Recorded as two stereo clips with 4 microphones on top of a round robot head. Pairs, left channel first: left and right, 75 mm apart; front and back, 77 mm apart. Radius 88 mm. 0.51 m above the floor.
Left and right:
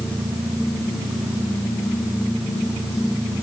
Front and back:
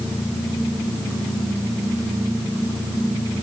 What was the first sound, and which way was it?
Only background noise.